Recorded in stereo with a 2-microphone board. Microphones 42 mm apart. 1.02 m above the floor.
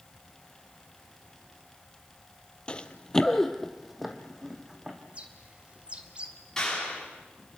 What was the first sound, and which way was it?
Running footsteps, 25° left (ahead or behind).